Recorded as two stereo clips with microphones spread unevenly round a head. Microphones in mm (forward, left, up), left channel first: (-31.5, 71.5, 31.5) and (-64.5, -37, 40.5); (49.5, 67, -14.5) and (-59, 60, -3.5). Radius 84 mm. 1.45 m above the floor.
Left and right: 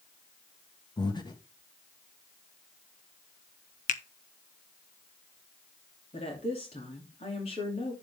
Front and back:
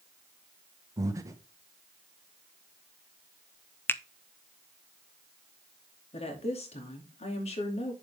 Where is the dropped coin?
No dropped coin in this recording.